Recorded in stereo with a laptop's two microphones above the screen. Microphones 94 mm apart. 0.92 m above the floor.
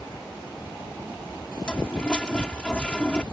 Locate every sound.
1.6 s a toilet flushing: 10° left (ahead or behind)